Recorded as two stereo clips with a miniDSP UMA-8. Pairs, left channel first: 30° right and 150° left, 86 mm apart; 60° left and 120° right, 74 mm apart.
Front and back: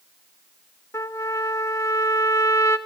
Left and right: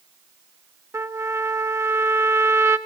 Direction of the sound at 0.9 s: 80° right.